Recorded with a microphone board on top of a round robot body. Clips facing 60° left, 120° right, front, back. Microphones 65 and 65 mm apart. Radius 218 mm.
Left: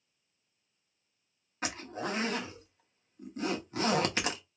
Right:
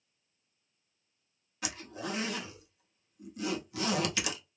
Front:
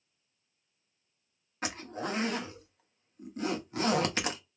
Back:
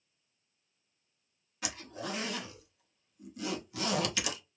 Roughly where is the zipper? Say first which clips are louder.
Left 3 dB, front 4 dB; ahead left.